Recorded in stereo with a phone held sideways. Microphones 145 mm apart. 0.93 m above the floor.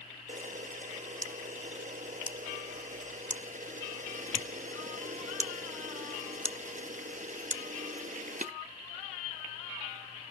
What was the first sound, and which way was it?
A camera shutter, 60° right (ahead or behind).